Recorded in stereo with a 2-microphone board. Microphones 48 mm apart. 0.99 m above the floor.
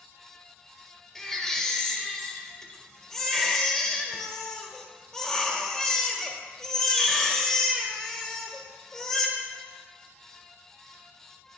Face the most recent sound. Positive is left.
turn(degrees=5)  # may be behind; listen again after turning